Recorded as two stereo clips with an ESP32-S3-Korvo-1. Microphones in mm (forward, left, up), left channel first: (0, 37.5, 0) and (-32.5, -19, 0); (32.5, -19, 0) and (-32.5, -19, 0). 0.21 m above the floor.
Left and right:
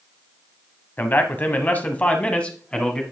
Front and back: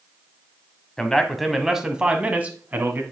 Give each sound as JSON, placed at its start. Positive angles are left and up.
{"t": 1.0, "sound": "a man speaking", "azimuth_deg": 70, "distance_m": 1.1}